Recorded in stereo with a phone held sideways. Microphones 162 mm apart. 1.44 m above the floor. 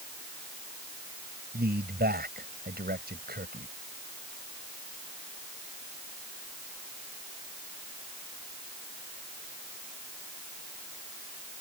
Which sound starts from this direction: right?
A man speaking, at 1.5 s.